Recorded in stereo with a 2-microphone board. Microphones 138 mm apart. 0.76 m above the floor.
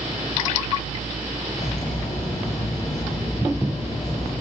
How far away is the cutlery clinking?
About 7 m.